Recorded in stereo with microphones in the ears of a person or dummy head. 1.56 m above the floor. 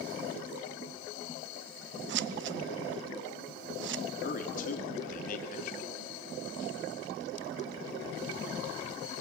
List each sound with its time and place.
2.1 s scissors: 65° right (ahead or behind), 0.7 m
4.2 s a man speaking: 55° left (ahead or behind), 3 m